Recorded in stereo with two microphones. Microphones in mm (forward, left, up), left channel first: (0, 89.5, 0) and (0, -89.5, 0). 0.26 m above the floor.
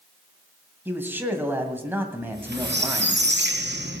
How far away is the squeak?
About 3 m.